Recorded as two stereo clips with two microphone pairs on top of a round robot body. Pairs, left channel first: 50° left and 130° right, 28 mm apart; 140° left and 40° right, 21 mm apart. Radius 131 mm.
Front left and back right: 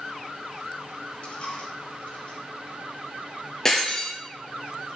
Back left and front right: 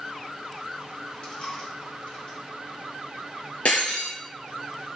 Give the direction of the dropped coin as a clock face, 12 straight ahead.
9 o'clock.